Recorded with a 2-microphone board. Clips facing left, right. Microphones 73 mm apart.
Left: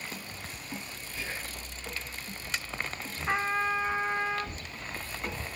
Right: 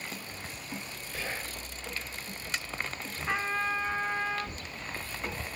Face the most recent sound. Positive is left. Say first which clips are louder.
# left 2 dB
turn(degrees=15)  # may be behind; listen again after turning